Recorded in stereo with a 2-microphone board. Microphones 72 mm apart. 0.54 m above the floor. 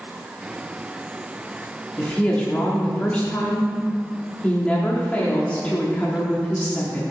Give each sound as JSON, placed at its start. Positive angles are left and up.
{"t": 2.0, "sound": "a woman speaking", "side_deg": 20, "distance_m": 1.2}